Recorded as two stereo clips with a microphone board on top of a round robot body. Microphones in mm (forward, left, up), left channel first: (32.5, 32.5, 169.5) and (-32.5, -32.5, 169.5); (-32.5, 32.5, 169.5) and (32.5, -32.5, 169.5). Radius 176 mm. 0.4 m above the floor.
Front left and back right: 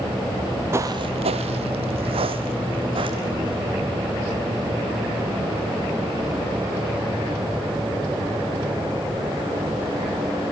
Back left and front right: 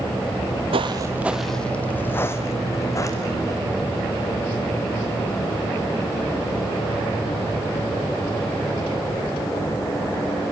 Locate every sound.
0.3 s footsteps: 45° right, 0.7 m; by 3.6 s 170° right, 2 m